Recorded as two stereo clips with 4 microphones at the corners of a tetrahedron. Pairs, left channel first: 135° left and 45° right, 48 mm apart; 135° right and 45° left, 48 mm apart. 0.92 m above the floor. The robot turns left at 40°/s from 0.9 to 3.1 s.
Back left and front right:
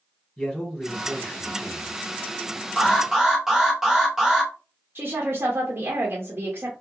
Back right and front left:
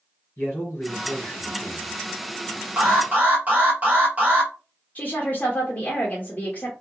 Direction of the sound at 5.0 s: 80° right.